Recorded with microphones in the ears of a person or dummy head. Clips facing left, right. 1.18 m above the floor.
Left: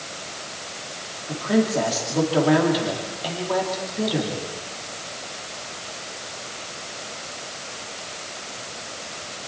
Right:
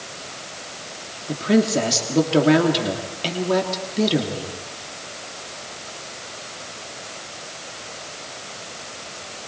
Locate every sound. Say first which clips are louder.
1.3 s a woman speaking: right 3 dB; 35° right (ahead or behind), 2.5 m